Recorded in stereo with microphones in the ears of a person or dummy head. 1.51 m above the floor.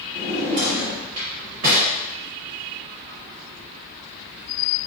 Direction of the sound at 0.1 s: 30° right (ahead or behind).